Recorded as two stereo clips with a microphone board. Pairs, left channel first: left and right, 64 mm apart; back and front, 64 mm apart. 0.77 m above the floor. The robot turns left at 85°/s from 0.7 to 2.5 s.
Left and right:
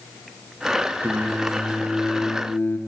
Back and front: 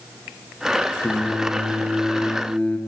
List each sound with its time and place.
1.0 s singing: 120° right, 0.5 m; by 2.8 s 115° left, 0.5 m